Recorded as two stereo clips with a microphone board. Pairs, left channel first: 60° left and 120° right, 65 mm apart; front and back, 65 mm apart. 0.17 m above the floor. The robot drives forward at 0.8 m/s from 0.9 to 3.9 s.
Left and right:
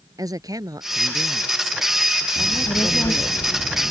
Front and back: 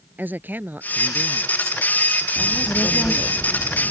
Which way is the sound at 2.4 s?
70° left.